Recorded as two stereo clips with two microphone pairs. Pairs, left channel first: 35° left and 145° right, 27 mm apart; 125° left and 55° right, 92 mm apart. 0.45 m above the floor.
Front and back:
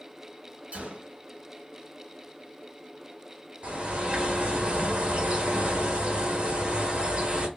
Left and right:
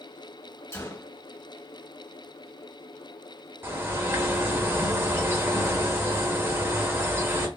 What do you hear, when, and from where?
0.7 s a gunshot: 175° right, 1.5 m
3.6 s a bird: 115° right, 1.2 m